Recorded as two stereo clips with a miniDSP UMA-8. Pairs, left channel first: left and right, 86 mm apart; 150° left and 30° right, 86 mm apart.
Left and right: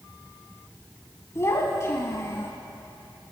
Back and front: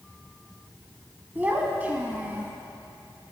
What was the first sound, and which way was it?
A child speaking, 40° left.